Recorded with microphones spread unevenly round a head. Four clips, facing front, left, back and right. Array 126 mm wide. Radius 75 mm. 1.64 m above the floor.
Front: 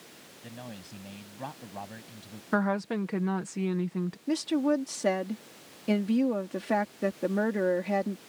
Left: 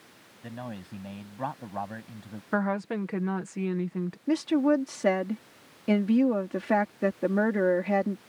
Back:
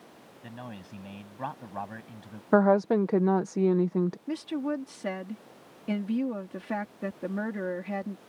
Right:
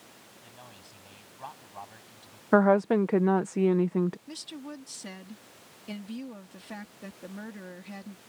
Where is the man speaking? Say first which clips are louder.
Left 14 dB, back 1 dB; 95° left; by 2.4 s 105° left.